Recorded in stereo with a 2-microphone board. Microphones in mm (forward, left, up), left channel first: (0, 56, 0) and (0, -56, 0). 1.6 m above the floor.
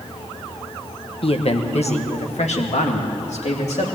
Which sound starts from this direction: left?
A man speaking, at 1.2 s.